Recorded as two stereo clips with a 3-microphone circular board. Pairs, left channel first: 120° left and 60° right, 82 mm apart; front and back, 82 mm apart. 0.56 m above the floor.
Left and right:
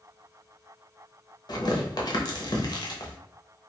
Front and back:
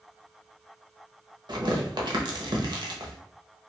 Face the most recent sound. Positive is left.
turn(degrees=155)